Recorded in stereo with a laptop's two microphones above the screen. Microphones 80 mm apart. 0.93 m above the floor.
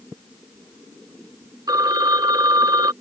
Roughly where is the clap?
I don't hear a clap.